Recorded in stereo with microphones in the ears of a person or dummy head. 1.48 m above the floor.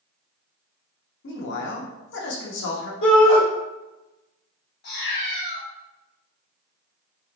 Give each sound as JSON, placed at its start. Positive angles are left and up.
{"t": 1.2, "sound": "a man speaking", "side_deg": 70, "distance_m": 0.8}
{"t": 3.0, "sound": "a shout", "side_deg": 80, "distance_m": 0.9}
{"t": 4.8, "sound": "a cat meowing", "side_deg": 60, "distance_m": 1.3}